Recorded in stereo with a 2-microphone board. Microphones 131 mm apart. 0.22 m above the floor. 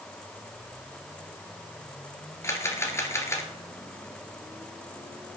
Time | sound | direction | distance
2.4 | a camera shutter | 20° left (ahead or behind) | 1.9 m